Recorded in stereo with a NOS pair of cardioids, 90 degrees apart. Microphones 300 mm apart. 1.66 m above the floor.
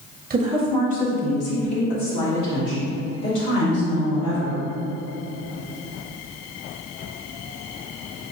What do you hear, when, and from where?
0.3 s a woman speaking: 25° right, 0.6 m; by 4.6 s 75° left, 4 m